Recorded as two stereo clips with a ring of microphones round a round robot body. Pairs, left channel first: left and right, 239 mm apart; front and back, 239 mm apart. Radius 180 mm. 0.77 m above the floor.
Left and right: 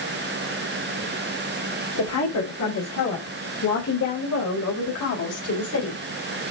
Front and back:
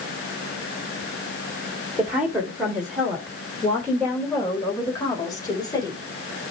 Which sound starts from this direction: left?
A woman speaking, at 2.0 s.